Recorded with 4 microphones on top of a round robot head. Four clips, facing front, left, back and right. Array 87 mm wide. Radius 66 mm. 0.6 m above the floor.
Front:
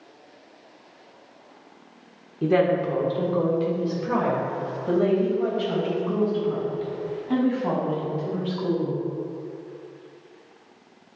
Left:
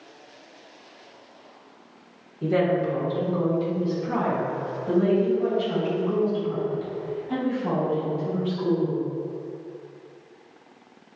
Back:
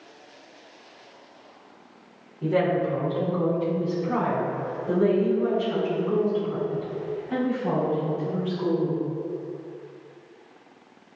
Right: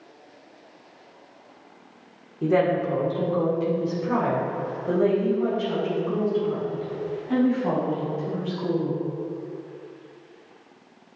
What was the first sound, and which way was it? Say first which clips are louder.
A woman speaking: right 1 dB, front 2 dB; 25° right.